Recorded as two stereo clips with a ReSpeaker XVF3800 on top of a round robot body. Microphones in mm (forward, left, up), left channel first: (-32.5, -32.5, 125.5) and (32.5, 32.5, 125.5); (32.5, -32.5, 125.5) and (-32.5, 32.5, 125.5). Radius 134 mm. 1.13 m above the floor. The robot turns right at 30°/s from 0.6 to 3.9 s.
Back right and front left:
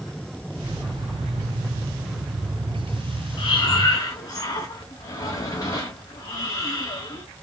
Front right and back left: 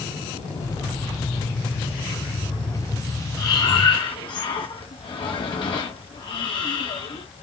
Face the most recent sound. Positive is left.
turn(degrees=-80)